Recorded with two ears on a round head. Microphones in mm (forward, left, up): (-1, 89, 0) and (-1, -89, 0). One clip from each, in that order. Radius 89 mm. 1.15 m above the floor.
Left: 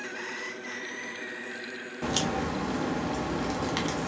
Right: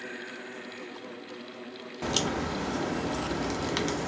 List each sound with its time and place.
2.0 s a crack: 10° right (ahead or behind), 0.5 m